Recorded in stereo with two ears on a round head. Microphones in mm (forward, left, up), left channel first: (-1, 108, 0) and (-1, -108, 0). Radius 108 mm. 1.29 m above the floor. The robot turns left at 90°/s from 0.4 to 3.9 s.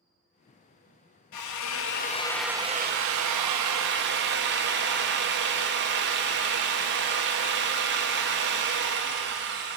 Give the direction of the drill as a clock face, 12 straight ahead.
9 o'clock.